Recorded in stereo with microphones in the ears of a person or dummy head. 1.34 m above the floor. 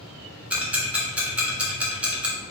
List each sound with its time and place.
0.5 s ticking: 10° right (ahead or behind), 1.2 m